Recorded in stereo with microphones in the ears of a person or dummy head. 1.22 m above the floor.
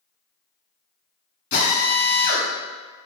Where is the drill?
55° left (ahead or behind), 1.7 m.